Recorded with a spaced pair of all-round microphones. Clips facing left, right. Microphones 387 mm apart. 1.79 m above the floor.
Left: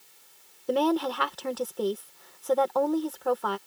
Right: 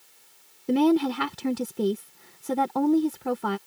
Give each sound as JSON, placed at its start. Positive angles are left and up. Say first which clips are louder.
{"t": 0.7, "sound": "a woman speaking", "louder": "right 5 dB", "side_deg": -35}